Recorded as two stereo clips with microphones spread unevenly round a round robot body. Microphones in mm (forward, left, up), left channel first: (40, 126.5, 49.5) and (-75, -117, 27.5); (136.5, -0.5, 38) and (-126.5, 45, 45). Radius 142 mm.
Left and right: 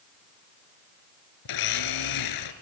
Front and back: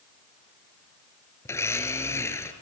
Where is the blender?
70° left, 1.5 m.